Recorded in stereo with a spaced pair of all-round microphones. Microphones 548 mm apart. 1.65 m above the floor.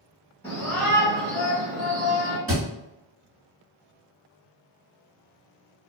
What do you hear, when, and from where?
0.4 s a shout: 5° left (ahead or behind), 1.5 m; by 2.4 s 35° right (ahead or behind), 1.7 m
2.5 s a thud: 25° right (ahead or behind), 1.2 m